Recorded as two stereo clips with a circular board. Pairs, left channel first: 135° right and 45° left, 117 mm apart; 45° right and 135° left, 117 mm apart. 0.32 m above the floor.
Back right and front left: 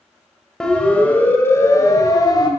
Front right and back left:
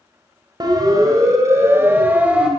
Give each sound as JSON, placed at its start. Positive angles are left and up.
{"t": 0.6, "sound": "a siren", "azimuth_deg": 145, "distance_m": 2.0}